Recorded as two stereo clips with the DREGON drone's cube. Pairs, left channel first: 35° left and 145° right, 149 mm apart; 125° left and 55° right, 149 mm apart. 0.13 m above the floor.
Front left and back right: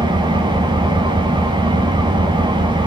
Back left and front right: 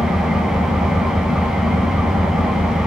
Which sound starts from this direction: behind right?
An engine running, at 0.0 s.